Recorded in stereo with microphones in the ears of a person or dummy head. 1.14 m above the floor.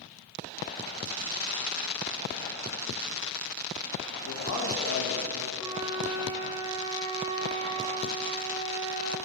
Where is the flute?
20° right (ahead or behind), 0.9 m.